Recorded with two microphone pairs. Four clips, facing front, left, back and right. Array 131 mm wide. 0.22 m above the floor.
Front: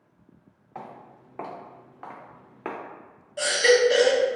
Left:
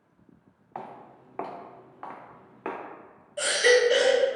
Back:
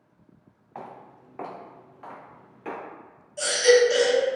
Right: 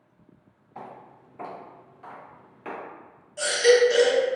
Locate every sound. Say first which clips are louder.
0.8 s footsteps: left 2 dB, even; 100° left, 1.1 m; by 2.8 s 35° left, 0.9 m
3.4 s a baby crying: right 3 dB, back 1 dB; 30° left, 0.6 m